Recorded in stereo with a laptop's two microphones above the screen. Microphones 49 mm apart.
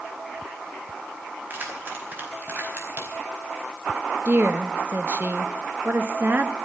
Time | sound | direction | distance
1.5 | keys jangling | 40° right (ahead or behind) | 4.5 m
4.2 | a woman speaking | 40° right (ahead or behind) | 1.6 m